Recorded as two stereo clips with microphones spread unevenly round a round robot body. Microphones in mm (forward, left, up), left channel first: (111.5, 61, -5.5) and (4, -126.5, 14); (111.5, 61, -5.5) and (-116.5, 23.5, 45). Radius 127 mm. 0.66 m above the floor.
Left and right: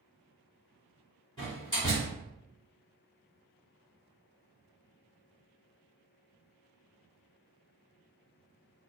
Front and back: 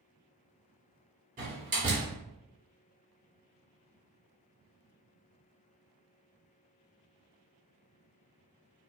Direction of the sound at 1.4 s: 130° left.